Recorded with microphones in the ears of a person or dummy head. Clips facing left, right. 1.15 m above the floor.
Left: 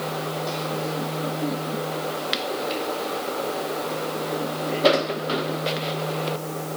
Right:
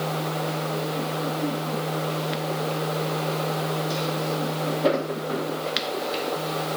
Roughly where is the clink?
I don't hear a clink.